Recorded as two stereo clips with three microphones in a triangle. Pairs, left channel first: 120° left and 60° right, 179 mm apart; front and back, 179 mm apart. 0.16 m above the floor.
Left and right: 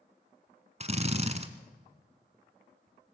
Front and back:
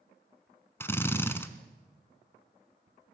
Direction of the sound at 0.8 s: 70° right.